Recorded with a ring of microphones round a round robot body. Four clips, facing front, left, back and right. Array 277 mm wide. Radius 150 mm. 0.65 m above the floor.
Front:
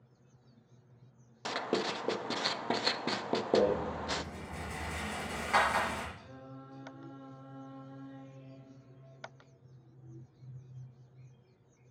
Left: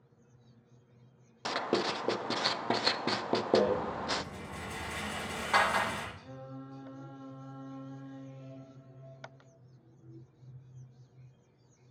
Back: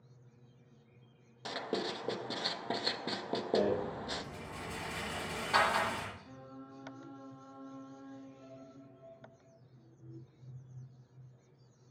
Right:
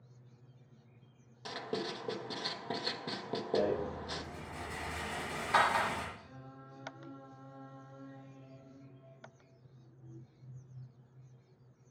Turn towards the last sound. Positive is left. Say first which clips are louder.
# left 7 dB, front 1 dB
turn(degrees=60)